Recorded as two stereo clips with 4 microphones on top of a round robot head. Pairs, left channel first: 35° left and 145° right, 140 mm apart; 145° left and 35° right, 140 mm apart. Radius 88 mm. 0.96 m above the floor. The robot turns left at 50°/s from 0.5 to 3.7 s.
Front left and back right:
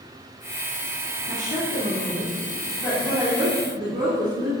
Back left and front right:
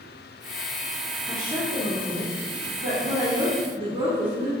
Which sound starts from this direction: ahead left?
A woman speaking, at 1.3 s.